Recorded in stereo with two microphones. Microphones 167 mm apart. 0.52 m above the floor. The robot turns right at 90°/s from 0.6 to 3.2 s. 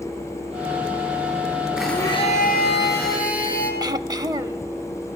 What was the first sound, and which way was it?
A blender, 5° right.